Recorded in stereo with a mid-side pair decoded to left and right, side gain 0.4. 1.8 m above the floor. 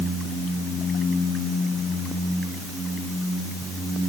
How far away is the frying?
I don't hear frying.